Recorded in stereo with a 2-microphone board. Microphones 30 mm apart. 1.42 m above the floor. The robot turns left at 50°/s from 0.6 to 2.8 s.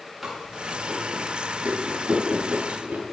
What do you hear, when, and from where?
0.2 s chewing: 10° right (ahead or behind), 9.5 m; by 3.0 s 60° right (ahead or behind), 9.5 m